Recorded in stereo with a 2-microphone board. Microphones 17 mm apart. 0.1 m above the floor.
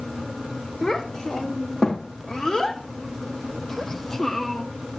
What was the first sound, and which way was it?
A child speaking, 50° left (ahead or behind).